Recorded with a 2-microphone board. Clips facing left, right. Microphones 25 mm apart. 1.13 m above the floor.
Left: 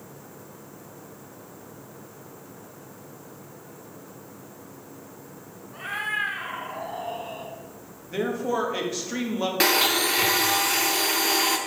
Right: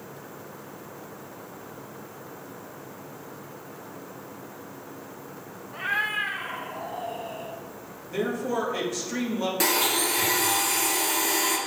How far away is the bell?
No bell in this recording.